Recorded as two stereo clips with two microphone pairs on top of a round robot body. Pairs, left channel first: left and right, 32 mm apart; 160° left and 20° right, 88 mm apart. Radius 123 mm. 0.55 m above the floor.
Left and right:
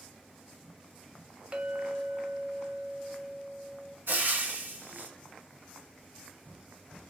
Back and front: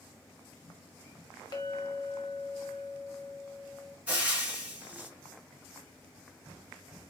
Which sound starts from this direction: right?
Frying, at 4.1 s.